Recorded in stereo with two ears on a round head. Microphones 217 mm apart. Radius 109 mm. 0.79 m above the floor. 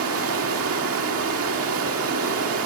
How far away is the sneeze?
No sneeze in this recording.